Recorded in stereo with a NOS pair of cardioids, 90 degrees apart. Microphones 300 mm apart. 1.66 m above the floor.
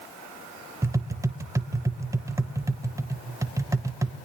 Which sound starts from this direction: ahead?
Tapping, at 0.8 s.